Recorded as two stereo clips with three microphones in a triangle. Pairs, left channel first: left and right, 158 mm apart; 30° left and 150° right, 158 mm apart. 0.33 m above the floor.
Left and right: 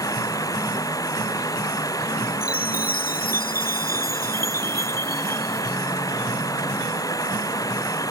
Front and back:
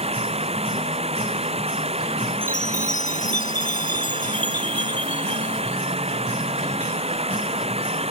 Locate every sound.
0.0 s running water: 160° left
2.4 s a chime: 65° left